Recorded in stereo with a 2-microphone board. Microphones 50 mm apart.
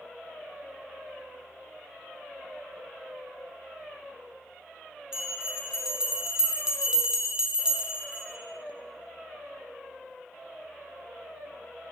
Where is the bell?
15° right (ahead or behind), 0.7 m.